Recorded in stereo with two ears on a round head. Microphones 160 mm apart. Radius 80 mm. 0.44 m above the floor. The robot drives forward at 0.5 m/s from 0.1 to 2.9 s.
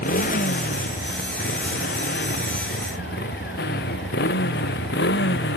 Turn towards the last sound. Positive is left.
turn(degrees=65)  # may be behind; listen again after turning